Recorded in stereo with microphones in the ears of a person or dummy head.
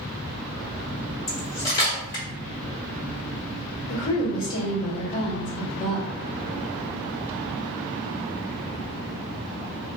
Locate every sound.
1.3 s cutlery clinking: 20° left (ahead or behind), 1.7 m
3.9 s a woman speaking: 25° left (ahead or behind), 1.6 m